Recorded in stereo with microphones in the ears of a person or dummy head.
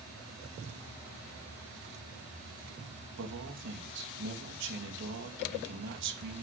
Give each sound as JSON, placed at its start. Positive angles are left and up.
{"t": 3.2, "sound": "a man speaking", "side_deg": -65, "distance_m": 3.0}